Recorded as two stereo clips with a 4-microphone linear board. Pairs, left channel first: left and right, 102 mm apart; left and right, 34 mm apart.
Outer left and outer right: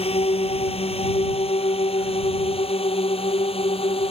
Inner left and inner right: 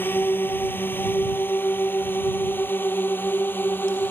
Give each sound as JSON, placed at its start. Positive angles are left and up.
{"t": 0.0, "sound": "a drone", "side_deg": 75}